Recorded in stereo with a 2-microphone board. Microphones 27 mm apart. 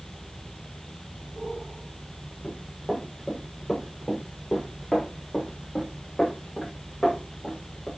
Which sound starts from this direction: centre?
Running footsteps, at 2.4 s.